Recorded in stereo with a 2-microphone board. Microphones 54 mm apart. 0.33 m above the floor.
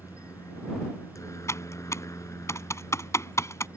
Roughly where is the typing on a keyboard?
Left.